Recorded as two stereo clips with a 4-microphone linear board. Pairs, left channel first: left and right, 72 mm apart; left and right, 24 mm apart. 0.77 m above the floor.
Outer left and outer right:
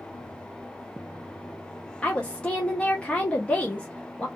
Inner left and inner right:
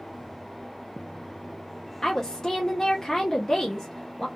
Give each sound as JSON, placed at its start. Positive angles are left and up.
{"t": 2.0, "sound": "a woman speaking", "side_deg": 15, "distance_m": 0.7}